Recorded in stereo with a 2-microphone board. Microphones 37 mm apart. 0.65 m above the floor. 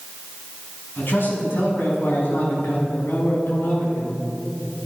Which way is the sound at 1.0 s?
80° left.